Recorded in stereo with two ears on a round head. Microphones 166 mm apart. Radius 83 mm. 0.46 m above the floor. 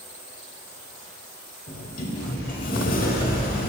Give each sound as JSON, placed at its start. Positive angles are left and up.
{"t": 1.7, "sound": "a sliding door", "side_deg": 50, "distance_m": 0.9}